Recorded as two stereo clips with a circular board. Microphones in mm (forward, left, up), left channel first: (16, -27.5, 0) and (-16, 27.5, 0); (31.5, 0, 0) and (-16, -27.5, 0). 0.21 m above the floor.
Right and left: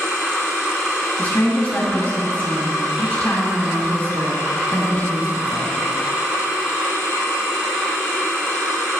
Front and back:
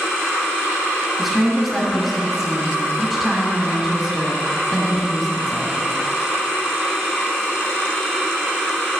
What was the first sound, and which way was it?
A woman speaking, 65° right.